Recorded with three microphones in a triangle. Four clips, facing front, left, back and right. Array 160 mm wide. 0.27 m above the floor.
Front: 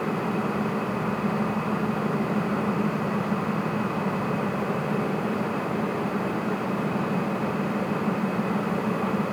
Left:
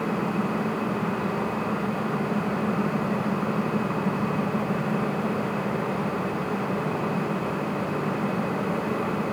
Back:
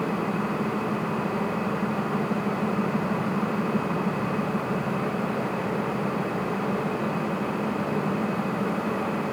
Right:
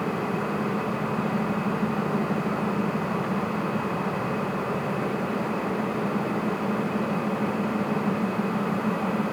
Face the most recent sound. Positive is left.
No sound to turn to.